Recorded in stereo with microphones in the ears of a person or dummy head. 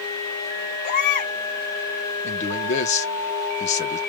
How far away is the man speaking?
About 1.3 m.